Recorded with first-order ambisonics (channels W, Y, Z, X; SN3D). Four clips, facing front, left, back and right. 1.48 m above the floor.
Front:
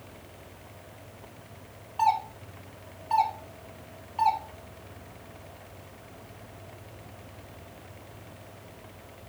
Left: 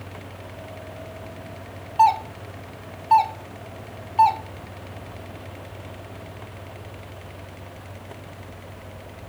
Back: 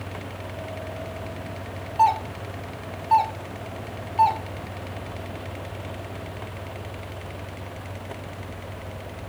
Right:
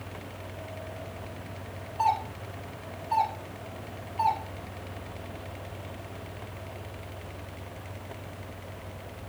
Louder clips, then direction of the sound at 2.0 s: Left 9 dB, back 5 dB; 105° left.